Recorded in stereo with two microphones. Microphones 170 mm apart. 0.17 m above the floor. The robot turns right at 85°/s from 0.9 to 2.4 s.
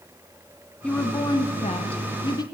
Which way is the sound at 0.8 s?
10° left.